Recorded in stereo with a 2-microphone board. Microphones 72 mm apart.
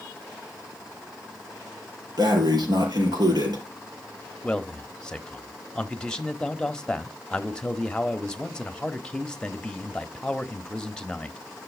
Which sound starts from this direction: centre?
A man speaking, at 4.4 s.